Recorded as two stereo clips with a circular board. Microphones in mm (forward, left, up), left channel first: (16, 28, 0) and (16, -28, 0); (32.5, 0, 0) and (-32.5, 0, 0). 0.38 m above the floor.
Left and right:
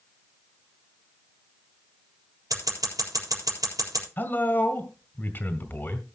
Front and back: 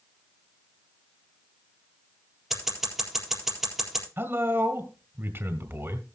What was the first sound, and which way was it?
Scissors, 95° right.